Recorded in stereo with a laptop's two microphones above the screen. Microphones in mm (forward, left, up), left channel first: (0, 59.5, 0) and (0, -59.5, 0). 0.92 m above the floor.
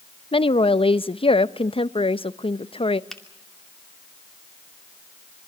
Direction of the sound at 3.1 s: 5° left (ahead or behind).